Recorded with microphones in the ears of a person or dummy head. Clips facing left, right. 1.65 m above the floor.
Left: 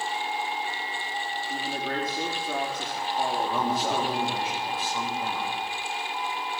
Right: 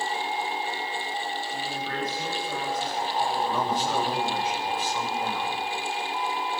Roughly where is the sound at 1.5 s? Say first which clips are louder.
Left 1 dB; left.